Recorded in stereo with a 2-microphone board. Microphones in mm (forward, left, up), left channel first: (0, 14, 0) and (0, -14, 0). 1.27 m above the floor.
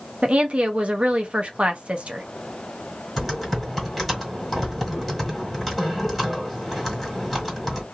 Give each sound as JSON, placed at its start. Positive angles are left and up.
{"t": 0.2, "sound": "a woman speaking", "side_deg": -45, "distance_m": 0.7}
{"t": 3.2, "sound": "typing on a keyboard", "side_deg": 0, "distance_m": 1.7}